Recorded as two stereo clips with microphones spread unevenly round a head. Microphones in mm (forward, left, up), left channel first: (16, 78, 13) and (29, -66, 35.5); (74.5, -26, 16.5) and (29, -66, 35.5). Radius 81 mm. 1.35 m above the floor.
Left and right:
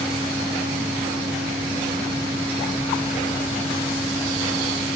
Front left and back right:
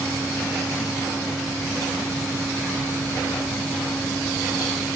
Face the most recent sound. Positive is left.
No sound to turn to.